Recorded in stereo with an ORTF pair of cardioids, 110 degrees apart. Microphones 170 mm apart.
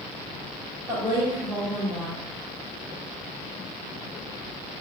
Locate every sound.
0.9 s a woman speaking: 20° right, 1.6 m